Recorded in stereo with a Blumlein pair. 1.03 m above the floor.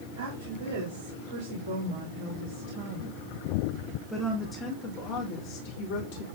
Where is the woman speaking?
60° right, 3.5 m; by 6.2 s 55° left, 2.5 m.